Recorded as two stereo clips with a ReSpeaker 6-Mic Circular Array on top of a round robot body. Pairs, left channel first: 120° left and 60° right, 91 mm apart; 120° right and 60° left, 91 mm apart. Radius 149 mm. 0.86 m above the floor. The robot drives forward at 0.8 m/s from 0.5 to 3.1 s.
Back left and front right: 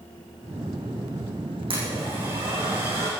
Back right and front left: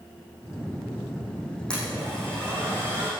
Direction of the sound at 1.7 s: 40° right.